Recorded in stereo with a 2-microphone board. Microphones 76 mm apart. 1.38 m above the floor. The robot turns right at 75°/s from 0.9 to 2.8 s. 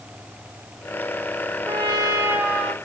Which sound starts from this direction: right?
A trumpet, at 1.6 s.